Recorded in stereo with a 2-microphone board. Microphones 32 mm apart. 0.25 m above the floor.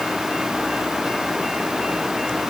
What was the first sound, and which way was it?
Only background noise.